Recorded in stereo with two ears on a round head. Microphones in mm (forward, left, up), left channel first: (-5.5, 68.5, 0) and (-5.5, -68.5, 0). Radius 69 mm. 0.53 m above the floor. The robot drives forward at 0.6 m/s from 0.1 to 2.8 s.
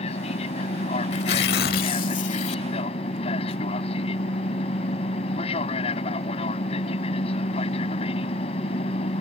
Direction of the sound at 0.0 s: 45° left (ahead or behind).